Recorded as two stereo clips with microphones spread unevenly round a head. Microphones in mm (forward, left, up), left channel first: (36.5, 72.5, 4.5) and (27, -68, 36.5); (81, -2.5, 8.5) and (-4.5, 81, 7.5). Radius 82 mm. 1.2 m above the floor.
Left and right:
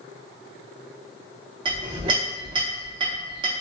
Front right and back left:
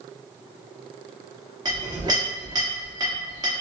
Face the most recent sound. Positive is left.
turn(degrees=-155)